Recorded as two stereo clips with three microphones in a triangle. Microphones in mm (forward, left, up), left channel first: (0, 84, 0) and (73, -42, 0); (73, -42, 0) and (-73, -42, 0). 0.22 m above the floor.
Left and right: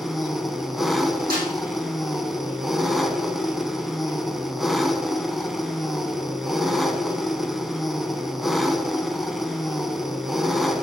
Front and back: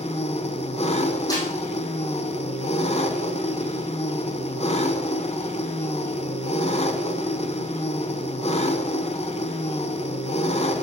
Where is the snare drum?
65° right, 4 m.